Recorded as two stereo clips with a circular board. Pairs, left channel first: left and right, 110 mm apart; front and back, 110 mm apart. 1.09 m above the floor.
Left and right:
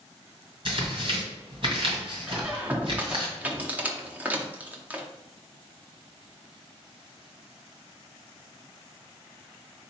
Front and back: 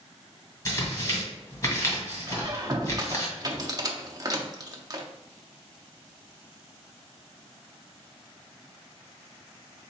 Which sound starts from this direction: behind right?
A squeak, at 2.3 s.